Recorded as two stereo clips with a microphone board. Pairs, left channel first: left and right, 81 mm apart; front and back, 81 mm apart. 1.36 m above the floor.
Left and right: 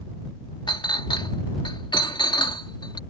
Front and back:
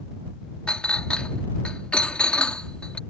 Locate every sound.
0.7 s a clink: 75° left